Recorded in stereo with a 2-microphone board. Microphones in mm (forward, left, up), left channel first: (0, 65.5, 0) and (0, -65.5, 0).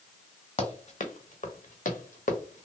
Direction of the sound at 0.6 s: 55° left (ahead or behind).